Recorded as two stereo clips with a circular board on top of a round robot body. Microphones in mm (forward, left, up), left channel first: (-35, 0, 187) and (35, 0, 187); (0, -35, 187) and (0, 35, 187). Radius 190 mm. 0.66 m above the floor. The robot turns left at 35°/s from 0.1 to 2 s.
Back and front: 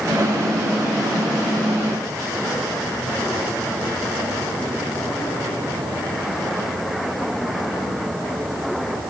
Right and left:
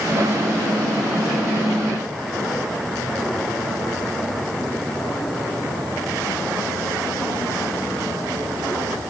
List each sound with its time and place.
Only background noise.